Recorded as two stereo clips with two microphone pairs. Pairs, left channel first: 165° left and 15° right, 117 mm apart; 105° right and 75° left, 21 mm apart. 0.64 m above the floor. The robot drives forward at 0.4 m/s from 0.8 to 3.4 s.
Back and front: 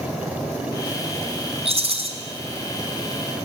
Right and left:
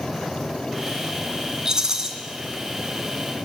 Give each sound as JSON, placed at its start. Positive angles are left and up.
{"t": 1.6, "sound": "a rattle", "azimuth_deg": 15, "distance_m": 2.5}